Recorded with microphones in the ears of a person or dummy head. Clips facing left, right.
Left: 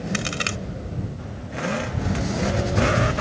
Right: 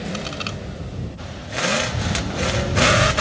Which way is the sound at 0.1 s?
25° left (ahead or behind).